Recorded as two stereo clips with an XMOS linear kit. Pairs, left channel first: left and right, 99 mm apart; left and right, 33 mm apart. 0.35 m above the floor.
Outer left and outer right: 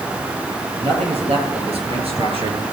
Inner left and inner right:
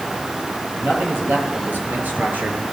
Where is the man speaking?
80° right, 7 m; by 2.6 s 65° right (ahead or behind), 5 m.